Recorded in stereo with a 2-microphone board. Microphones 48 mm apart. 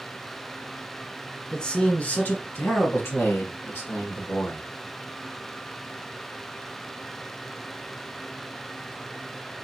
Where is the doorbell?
I don't hear a doorbell.